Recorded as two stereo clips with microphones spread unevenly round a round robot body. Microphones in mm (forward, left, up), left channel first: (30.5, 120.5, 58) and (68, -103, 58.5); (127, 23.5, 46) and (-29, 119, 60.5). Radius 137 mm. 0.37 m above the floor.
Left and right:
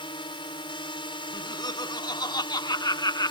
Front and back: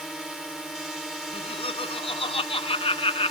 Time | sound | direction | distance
0.0 | a drone | 55° left | ?
1.3 | laughter | 25° left | ?